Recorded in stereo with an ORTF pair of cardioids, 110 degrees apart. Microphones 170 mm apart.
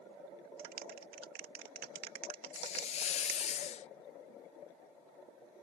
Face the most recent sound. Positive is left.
turn(degrees=40)